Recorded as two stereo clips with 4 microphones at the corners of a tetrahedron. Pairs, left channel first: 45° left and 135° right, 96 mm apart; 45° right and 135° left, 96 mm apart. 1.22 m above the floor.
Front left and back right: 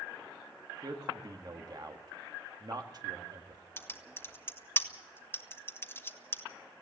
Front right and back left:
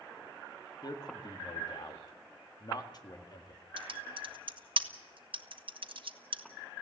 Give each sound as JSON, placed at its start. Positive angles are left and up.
{"t": 0.8, "sound": "a man speaking", "azimuth_deg": -90, "distance_m": 1.8}
{"t": 3.8, "sound": "typing on a keyboard", "azimuth_deg": 110, "distance_m": 1.3}